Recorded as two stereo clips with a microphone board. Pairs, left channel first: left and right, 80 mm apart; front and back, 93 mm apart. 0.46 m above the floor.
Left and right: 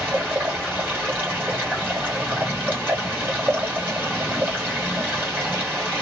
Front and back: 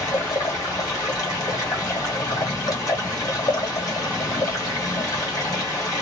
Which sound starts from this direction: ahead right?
Running water, at 0.0 s.